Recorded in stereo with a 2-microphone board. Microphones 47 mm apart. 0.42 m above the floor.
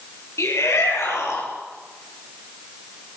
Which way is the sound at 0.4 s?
75° left (ahead or behind).